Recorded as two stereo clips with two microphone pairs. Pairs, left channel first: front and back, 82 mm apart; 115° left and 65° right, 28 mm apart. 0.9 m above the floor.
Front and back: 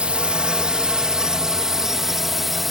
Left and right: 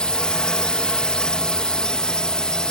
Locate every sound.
0.0 s a drone: 115° left; by 2.7 s 95° left